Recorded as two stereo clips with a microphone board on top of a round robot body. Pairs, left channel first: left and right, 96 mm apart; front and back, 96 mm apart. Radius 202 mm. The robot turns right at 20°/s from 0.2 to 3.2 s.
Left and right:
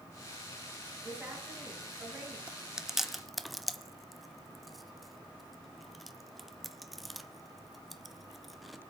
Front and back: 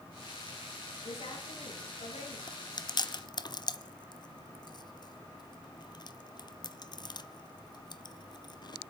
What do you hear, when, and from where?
1.0 s a woman speaking: 20° right, 7.5 m; by 2.4 s 10° left, 7.5 m
2.5 s chewing: 15° right, 1.2 m; by 8.8 s straight ahead, 1.2 m